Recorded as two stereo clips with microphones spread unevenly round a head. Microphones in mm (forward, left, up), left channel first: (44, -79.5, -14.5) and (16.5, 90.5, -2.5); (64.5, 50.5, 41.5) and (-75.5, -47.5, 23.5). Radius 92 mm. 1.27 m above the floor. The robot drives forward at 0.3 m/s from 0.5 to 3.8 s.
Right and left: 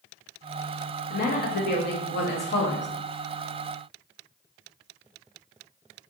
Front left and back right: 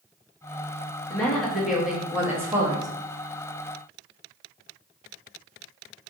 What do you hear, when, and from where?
1.1 s a woman speaking: 50° right, 1.1 m; by 2.9 s 80° right, 0.9 m